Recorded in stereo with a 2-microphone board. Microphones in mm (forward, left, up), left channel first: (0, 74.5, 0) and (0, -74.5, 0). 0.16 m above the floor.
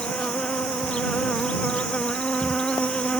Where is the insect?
5° left (ahead or behind).